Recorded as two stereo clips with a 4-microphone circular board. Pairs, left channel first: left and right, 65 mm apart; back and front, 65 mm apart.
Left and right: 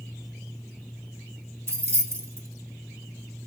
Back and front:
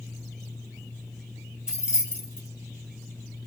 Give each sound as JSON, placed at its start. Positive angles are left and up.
{"t": 1.7, "sound": "keys jangling", "azimuth_deg": -70, "distance_m": 1.1}